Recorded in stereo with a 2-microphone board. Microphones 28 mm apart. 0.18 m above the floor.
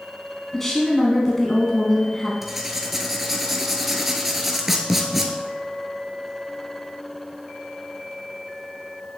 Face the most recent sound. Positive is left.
turn(degrees=-10)  # may be behind; listen again after turning